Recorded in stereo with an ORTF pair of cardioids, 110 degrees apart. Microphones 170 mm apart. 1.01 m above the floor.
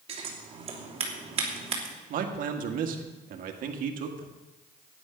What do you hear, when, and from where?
0.1 s scissors: 40° right, 3 m
2.1 s a man speaking: 65° right, 1.8 m